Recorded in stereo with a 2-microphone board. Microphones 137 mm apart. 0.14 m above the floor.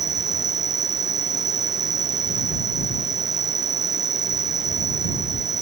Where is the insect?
25° right (ahead or behind).